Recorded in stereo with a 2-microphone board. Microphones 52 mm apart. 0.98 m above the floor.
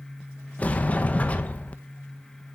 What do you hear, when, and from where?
0.6 s a sliding door: 25° left (ahead or behind), 0.9 m